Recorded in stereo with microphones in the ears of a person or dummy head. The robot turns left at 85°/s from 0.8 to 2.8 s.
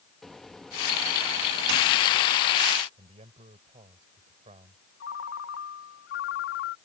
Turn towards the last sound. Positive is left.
turn(degrees=65)  # may be behind; listen again after turning